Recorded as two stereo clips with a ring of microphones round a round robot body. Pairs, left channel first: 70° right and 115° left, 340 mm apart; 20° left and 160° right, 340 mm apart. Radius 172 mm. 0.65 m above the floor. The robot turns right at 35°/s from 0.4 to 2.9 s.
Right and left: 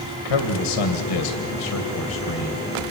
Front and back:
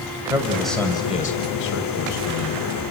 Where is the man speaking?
75° right, 2.5 m; by 2.9 s 10° left, 2.5 m.